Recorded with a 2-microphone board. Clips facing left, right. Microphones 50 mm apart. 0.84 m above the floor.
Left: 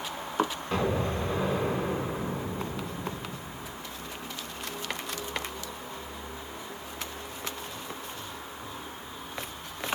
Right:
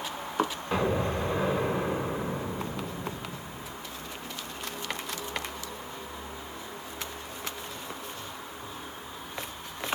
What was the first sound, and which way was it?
An explosion, 10° right (ahead or behind).